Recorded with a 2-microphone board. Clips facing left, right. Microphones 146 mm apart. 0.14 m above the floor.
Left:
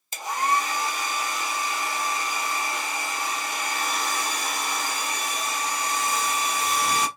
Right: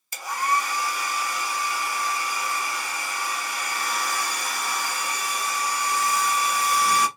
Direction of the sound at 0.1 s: 25° left (ahead or behind).